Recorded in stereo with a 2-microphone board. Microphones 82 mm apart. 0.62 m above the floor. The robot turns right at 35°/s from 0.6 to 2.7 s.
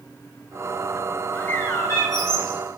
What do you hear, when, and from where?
1.3 s a bird: 20° left, 7.5 m; by 2.6 s 65° left, 7.5 m